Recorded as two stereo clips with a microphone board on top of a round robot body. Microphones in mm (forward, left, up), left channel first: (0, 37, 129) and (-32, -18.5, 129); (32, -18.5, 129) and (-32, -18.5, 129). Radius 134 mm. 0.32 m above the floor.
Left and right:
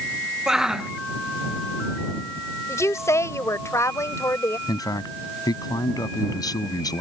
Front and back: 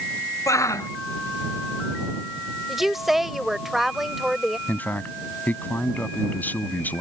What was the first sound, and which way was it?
A shout, 40° right.